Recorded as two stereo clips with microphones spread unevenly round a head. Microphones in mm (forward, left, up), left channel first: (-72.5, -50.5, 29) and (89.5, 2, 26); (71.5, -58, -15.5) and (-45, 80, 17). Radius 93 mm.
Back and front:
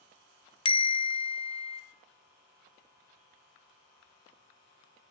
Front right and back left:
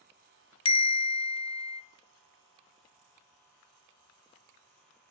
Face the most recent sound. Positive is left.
turn(degrees=-110)